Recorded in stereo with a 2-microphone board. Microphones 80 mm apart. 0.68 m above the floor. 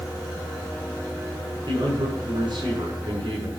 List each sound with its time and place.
1.7 s a man speaking: 75° right (ahead or behind), 7.5 m